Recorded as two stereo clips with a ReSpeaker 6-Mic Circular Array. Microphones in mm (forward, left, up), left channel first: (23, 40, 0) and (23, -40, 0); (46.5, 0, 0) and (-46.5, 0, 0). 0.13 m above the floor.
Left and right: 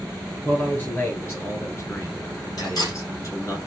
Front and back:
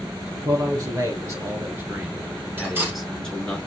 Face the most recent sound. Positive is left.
turn(degrees=115)